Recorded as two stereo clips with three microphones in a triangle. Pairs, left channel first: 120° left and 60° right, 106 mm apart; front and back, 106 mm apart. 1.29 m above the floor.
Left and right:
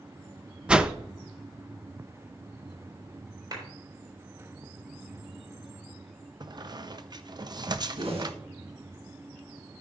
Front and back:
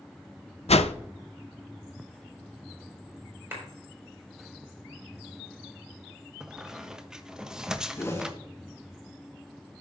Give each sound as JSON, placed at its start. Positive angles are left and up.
{"t": 0.7, "sound": "a whoosh", "azimuth_deg": 20, "distance_m": 0.5}
{"t": 3.5, "sound": "a clap", "azimuth_deg": -110, "distance_m": 4.5}
{"t": 6.4, "sound": "a squeak", "azimuth_deg": -95, "distance_m": 0.6}
{"t": 8.0, "sound": "a whoosh", "azimuth_deg": -60, "distance_m": 2.0}